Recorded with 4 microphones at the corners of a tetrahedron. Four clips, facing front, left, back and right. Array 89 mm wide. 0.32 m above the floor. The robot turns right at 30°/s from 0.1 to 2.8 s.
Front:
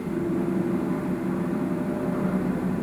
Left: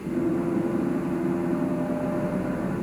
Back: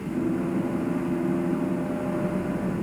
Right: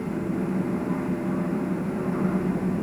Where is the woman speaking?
I don't hear a woman speaking.